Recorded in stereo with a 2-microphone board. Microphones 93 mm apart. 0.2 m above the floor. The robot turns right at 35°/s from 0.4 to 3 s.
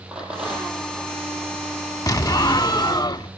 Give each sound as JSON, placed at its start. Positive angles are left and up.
{"t": 0.1, "sound": "a rattle", "side_deg": -5, "distance_m": 9.0}
{"t": 2.1, "sound": "an explosion", "azimuth_deg": 65, "distance_m": 0.5}